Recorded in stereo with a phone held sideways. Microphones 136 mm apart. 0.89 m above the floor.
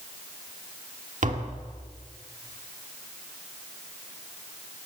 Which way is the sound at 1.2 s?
65° right (ahead or behind).